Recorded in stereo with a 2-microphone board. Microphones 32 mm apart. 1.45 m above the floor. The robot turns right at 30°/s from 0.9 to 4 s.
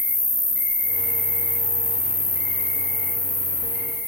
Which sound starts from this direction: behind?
An insect, at 0.0 s.